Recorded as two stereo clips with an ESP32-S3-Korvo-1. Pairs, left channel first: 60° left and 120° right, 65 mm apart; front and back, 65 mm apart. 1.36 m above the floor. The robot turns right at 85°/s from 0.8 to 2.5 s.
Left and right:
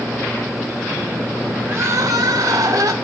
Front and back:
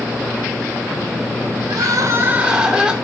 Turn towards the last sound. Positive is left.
turn(degrees=-105)